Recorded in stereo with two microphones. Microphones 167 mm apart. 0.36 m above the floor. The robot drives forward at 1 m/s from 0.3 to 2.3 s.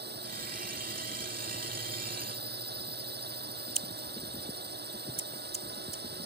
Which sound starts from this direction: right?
A drone, at 0.0 s.